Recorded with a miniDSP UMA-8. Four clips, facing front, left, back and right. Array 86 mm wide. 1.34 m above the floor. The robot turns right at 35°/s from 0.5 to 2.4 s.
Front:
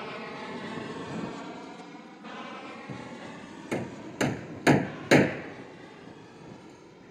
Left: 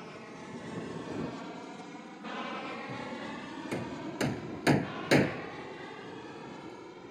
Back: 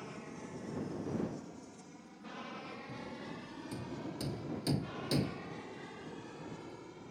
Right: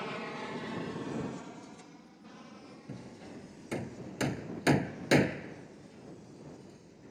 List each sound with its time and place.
0.0 s an aircraft: 40° right; by 7.1 s 95° left
2.9 s hammering: straight ahead